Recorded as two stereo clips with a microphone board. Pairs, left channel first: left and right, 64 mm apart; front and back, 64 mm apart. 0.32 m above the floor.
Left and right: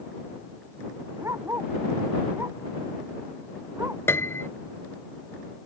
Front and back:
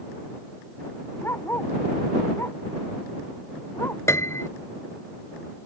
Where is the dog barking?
50° right.